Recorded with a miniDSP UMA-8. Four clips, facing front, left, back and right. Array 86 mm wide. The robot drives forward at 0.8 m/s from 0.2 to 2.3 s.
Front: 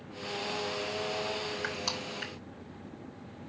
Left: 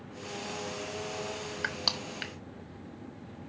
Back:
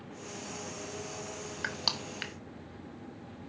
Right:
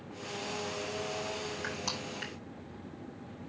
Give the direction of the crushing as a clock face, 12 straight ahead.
8 o'clock.